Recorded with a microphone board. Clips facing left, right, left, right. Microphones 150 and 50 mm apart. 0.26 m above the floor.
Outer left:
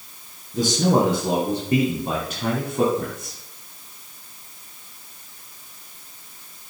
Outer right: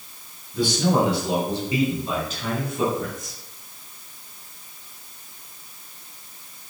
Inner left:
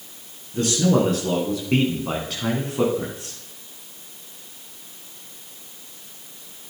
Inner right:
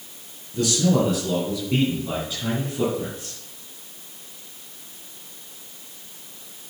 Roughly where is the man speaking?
Left.